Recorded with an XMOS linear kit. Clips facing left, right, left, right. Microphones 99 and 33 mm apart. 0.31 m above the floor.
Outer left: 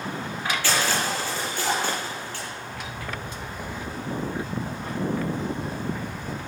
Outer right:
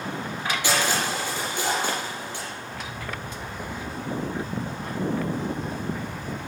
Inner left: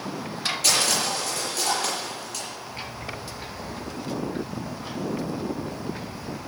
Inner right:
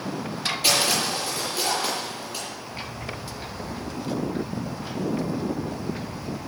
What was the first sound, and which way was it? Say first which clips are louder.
Crushing: outer right 1 dB, inner right 1 dB; 15° right (ahead or behind).